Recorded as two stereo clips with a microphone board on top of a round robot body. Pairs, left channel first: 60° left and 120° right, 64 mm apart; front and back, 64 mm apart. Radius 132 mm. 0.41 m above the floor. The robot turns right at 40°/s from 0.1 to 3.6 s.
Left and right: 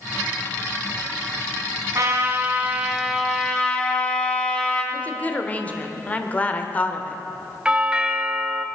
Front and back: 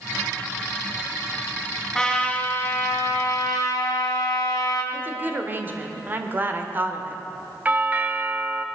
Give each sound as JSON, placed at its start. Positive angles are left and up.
{"t": 1.9, "sound": "a trumpet", "azimuth_deg": -80, "distance_m": 3.0}
{"t": 4.9, "sound": "a woman speaking", "azimuth_deg": 125, "distance_m": 1.7}
{"t": 7.7, "sound": "a doorbell", "azimuth_deg": -175, "distance_m": 1.2}